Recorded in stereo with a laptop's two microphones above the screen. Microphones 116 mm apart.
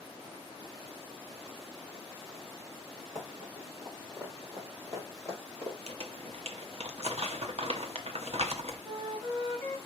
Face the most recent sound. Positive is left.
turn(degrees=-60)  # may be behind; listen again after turning